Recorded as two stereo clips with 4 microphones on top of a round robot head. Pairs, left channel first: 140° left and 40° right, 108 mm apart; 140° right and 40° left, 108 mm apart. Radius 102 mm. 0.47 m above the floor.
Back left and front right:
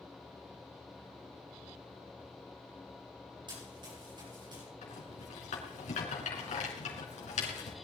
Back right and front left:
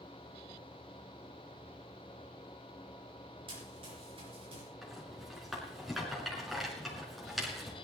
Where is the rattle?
130° left, 4 m.